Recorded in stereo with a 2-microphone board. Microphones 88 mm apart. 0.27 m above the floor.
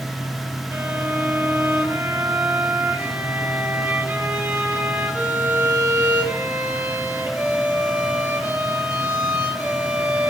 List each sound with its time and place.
0.7 s a violin: 20° right (ahead or behind), 1.7 m